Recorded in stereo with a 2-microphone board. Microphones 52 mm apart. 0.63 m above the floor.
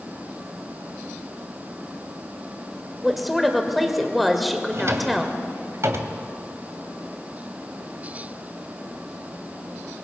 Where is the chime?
I don't hear a chime.